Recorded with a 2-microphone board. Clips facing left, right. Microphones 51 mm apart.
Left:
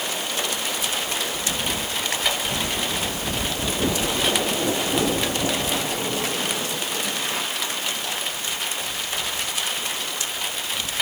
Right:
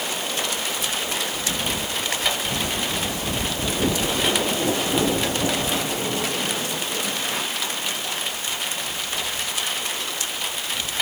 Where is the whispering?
I don't hear whispering.